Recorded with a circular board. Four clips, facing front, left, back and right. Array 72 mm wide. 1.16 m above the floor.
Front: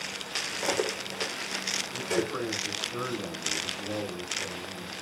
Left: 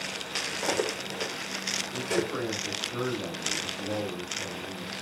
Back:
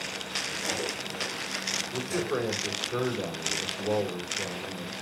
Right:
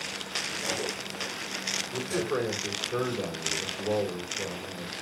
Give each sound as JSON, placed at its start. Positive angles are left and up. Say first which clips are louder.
{"t": 0.6, "sound": "cutlery clinking", "louder": "left 6 dB, front 6 dB", "azimuth_deg": 45, "distance_m": 2.0}
{"t": 1.9, "sound": "a man speaking", "louder": "even, even", "azimuth_deg": -130, "distance_m": 4.5}